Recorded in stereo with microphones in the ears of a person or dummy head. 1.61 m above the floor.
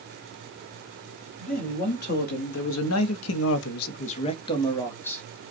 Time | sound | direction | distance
1.4 | a man speaking | 45° left (ahead or behind) | 1.3 m